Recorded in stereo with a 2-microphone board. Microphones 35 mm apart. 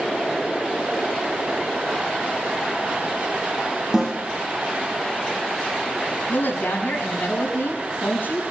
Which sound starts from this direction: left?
A woman speaking, at 6.3 s.